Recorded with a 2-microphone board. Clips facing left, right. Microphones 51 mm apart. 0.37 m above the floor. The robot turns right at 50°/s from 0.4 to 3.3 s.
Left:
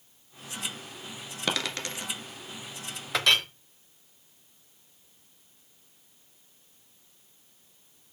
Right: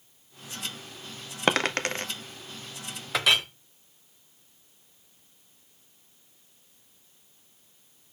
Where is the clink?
Centre (ahead or behind), 0.6 m; by 3.5 s 10° right (ahead or behind), 0.6 m.